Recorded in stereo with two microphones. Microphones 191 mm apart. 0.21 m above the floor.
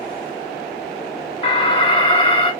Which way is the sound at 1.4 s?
30° left (ahead or behind).